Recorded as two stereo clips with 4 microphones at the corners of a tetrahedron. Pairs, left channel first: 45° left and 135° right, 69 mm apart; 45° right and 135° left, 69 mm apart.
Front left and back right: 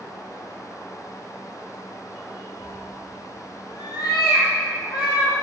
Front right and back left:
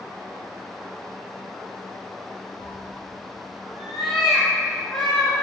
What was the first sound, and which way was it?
A cat meowing, 65° left.